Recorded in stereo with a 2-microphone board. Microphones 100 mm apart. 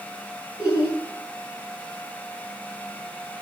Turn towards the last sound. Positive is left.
turn(degrees=30)  # may be behind; listen again after turning